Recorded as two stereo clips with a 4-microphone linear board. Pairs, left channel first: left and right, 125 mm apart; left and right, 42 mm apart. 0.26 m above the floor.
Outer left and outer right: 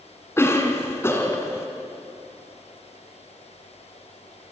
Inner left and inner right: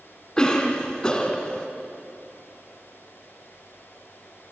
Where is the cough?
20° left (ahead or behind), 2 m.